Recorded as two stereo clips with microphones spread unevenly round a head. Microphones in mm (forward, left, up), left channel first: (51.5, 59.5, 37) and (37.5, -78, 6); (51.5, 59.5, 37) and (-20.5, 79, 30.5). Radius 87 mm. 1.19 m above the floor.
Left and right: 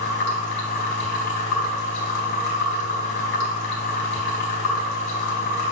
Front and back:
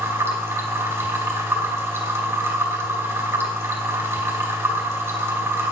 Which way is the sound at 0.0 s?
110° left.